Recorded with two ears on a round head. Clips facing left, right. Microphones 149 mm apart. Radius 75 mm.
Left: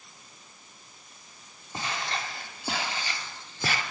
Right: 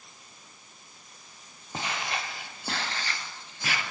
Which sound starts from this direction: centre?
Footsteps, at 1.7 s.